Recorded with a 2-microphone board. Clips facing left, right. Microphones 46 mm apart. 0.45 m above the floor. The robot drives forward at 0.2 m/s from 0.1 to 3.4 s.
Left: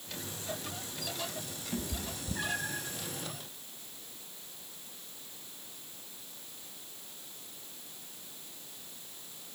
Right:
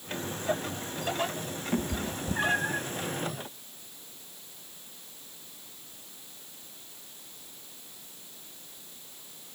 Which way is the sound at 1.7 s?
40° right (ahead or behind).